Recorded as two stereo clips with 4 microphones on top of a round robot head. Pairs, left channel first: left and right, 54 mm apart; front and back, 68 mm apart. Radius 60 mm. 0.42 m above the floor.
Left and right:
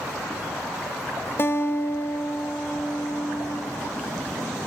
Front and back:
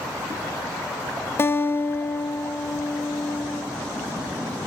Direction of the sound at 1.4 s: 45° left.